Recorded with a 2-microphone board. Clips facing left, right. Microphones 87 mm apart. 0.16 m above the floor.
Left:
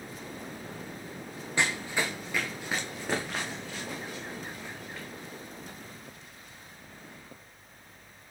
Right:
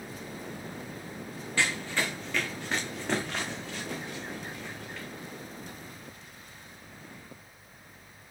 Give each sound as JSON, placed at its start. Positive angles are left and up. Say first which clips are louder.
{"t": 1.6, "sound": "running footsteps", "louder": "even", "side_deg": 20, "distance_m": 0.7}